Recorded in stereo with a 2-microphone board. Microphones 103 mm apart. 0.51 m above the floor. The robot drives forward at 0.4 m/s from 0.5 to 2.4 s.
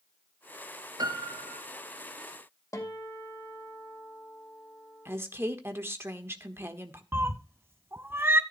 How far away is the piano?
About 1.4 m.